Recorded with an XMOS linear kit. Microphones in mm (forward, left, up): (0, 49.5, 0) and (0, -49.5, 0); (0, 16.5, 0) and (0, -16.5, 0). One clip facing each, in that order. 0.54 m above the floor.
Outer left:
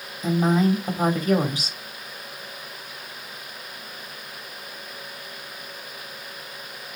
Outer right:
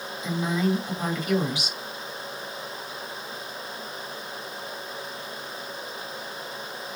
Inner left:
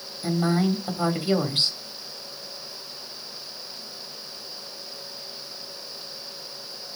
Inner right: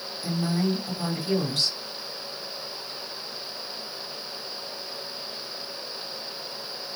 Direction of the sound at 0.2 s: 45° left (ahead or behind).